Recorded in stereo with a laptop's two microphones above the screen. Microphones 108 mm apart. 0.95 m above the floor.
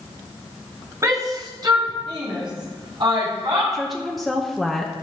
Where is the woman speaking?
Centre (ahead or behind), 0.8 m.